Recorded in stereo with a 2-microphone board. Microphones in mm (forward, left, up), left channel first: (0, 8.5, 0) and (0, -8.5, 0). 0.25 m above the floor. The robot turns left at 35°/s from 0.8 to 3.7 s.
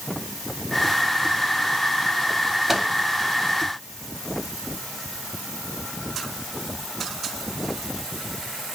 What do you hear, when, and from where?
2.7 s a microwave: 20° right (ahead or behind), 0.9 m; by 2.9 s 25° right (ahead or behind), 0.9 m